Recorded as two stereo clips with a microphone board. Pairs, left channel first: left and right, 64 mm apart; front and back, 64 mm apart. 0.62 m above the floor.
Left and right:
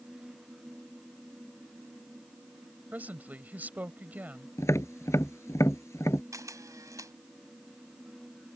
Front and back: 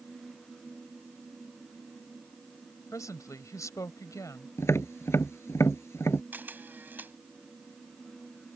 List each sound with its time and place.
2.9 s a woman speaking: 25° right
4.6 s tapping: 50° left
6.3 s a camera shutter: 120° right